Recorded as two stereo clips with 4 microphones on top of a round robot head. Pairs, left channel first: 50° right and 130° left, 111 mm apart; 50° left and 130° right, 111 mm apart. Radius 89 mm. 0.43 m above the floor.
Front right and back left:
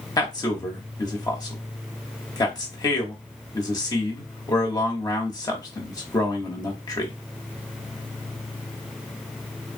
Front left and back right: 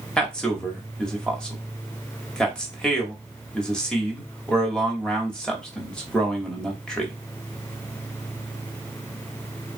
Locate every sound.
0.2 s a man speaking: 30° right, 1.4 m